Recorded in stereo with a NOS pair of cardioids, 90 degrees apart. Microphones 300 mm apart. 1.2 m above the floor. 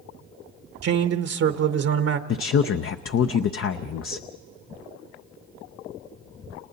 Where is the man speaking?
50° right, 1.0 m.